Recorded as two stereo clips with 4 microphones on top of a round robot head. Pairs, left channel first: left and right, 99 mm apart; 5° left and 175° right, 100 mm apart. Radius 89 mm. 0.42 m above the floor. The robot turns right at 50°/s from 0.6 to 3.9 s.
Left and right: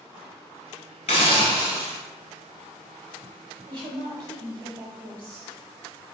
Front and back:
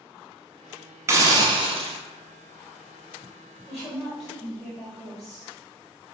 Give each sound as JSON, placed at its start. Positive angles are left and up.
{"t": 1.1, "sound": "a hiss", "azimuth_deg": 125, "distance_m": 0.8}
{"t": 3.7, "sound": "a woman speaking", "azimuth_deg": -90, "distance_m": 1.3}